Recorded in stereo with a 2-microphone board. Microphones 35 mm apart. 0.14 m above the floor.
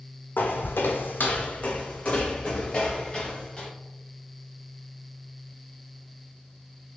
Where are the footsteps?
70° left (ahead or behind), 0.5 m; by 3.7 s 15° left (ahead or behind), 1.6 m.